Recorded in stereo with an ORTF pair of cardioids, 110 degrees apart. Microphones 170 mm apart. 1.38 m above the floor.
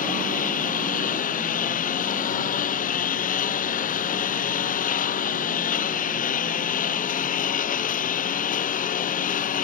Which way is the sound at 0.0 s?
55° left.